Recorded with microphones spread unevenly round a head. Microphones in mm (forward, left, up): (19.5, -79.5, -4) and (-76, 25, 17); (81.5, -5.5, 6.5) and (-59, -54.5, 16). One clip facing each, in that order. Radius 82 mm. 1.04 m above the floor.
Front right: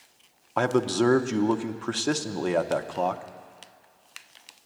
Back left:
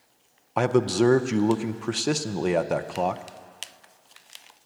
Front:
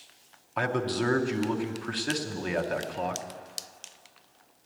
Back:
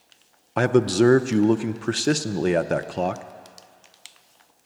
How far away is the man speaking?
About 0.6 m.